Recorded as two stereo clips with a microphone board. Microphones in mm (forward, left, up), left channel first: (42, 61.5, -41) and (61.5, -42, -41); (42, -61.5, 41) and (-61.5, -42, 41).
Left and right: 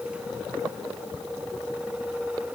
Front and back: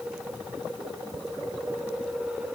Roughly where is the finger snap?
I don't hear a finger snap.